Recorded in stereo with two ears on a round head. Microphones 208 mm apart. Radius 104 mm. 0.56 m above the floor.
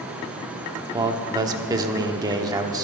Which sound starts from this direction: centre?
A man speaking, at 0.9 s.